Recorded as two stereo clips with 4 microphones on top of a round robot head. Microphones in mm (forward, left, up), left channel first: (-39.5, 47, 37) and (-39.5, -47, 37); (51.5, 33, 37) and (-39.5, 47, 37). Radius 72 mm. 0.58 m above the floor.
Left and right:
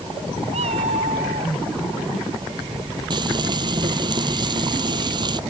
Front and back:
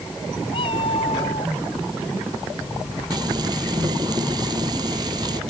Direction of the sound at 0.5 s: 60° right.